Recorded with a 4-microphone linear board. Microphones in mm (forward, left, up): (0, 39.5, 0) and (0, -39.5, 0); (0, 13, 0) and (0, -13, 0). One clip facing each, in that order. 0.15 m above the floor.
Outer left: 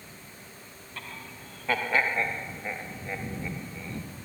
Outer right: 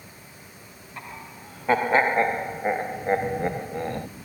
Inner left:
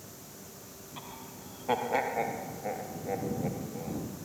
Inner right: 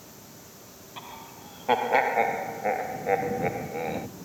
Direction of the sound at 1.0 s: 20° right (ahead or behind).